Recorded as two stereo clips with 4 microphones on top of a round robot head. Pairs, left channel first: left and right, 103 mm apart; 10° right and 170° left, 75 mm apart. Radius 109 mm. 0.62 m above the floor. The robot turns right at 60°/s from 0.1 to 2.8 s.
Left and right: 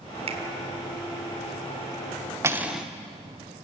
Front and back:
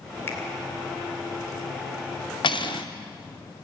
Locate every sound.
0.3 s a finger snap: 70° right, 2 m; by 0.4 s 60° right, 2 m
2.4 s cutlery clinking: 25° right, 0.9 m; by 2.9 s straight ahead, 0.9 m